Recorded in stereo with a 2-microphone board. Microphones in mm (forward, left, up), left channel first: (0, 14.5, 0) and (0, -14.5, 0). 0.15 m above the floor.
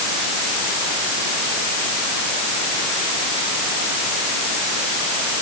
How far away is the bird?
No bird in this recording.